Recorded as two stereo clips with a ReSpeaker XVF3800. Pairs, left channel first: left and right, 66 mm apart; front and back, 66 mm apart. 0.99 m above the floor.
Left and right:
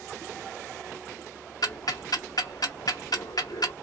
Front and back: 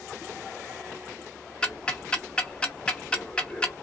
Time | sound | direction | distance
1.6 | ticking | 75° left | 0.7 m